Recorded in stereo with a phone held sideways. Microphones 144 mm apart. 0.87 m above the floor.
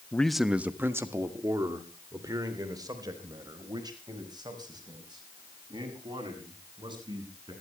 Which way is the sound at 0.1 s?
10° left (ahead or behind).